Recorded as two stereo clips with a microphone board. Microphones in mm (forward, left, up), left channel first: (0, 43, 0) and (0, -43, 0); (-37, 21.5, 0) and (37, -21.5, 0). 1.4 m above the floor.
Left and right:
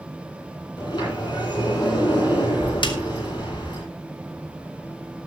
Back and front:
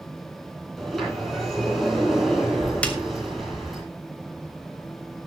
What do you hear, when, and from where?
0.8 s a sliding door: 60° left, 9.5 m
2.8 s a snare drum: 75° left, 2.0 m